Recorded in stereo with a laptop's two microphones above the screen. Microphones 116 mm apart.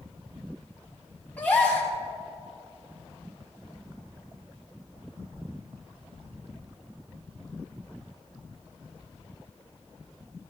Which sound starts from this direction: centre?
A gasp, at 1.4 s.